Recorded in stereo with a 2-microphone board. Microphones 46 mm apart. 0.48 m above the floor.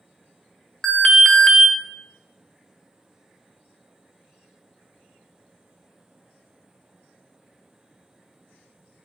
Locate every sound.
0.8 s an alarm: 10° left (ahead or behind), 0.8 m